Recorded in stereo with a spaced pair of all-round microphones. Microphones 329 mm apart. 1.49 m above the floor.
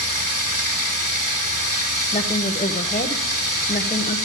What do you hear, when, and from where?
0.0 s running water: 60° right (ahead or behind), 2.5 m
2.1 s a woman speaking: 20° left (ahead or behind), 1.0 m